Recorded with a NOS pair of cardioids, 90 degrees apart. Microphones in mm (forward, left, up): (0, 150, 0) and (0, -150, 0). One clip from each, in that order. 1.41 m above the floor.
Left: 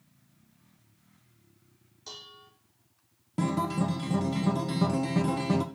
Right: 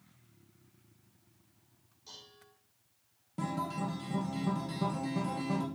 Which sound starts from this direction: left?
Dishes clattering, at 2.1 s.